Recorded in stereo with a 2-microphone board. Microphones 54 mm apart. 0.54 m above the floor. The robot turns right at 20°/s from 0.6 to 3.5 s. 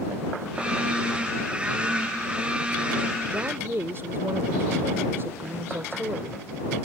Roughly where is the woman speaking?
Right.